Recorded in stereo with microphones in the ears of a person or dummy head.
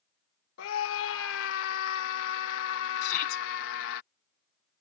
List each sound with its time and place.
0.6 s a scream: 80° left
3.0 s a shout: 55° left (ahead or behind)